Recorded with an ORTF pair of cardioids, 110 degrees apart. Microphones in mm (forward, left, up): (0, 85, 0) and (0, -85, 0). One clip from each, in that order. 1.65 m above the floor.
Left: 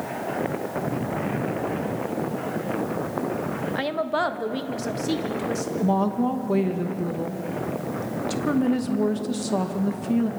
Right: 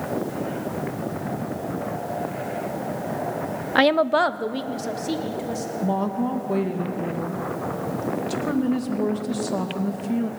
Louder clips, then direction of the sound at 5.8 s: Left 2 dB; 15° left.